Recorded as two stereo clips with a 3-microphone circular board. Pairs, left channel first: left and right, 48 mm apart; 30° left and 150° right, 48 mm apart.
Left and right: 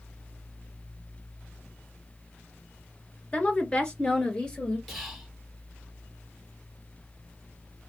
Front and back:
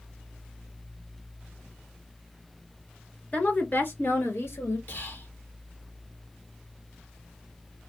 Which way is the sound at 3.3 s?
60° left.